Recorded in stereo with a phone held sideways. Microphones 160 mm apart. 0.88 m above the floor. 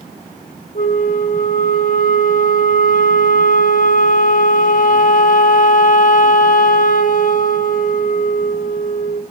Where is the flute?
60° left (ahead or behind), 0.9 m.